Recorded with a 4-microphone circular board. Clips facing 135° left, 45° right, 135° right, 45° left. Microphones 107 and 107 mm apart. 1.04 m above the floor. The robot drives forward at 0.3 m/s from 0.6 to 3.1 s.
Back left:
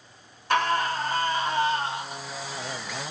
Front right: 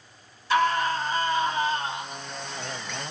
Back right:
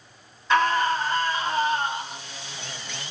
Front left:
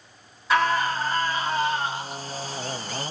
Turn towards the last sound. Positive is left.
turn(degrees=145)